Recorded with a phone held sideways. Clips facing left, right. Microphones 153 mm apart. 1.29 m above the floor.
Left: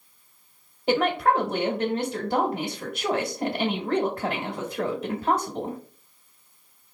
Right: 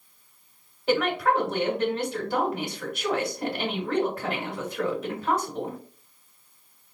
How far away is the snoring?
No snoring in this recording.